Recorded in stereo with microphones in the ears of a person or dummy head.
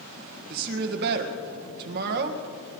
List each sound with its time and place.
0.5 s a woman speaking: 55° right (ahead or behind), 1.6 m